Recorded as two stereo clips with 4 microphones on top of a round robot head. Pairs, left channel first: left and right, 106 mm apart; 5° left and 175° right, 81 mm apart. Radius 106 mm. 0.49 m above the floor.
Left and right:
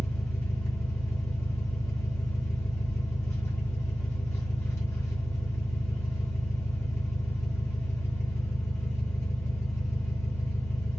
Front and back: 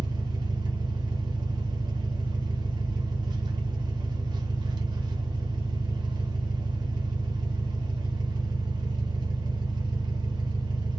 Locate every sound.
0.0 s an engine running: 155° left, 0.8 m